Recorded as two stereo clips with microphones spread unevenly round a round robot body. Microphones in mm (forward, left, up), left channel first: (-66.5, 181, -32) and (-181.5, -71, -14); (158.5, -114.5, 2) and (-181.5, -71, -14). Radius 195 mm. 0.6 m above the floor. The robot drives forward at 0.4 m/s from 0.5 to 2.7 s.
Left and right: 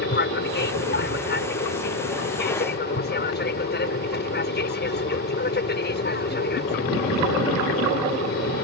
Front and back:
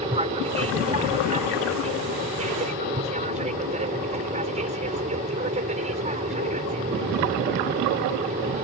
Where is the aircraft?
100° left; by 8.6 s 105° left.